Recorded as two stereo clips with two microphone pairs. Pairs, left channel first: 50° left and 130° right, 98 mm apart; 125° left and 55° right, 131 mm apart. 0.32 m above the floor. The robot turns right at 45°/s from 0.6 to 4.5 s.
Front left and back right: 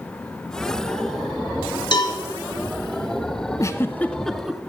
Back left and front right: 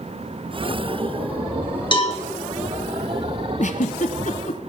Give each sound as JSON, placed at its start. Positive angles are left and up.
{"t": 1.9, "sound": "a cowbell", "azimuth_deg": 80, "distance_m": 1.4}
{"t": 3.6, "sound": "a giggle", "azimuth_deg": 105, "distance_m": 0.6}